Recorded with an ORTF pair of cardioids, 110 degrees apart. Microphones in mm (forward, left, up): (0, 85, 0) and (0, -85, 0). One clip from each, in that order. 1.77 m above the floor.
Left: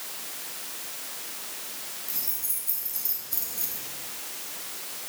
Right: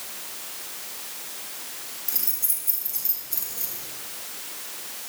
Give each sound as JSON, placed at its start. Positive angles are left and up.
{"t": 2.1, "sound": "keys jangling", "azimuth_deg": -50, "distance_m": 3.0}